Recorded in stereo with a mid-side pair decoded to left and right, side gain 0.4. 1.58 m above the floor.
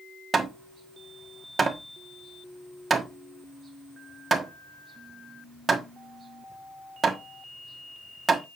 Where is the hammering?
40° right, 1.4 m.